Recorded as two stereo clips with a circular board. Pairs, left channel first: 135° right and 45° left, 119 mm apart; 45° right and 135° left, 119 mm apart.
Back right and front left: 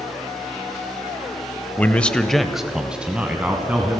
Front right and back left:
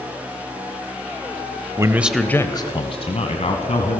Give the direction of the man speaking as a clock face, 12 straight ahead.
7 o'clock.